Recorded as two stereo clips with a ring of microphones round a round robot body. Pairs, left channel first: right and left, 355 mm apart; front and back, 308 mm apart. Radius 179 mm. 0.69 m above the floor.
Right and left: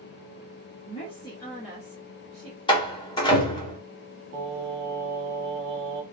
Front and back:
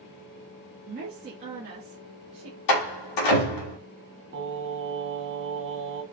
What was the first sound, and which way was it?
A woman speaking, 140° right.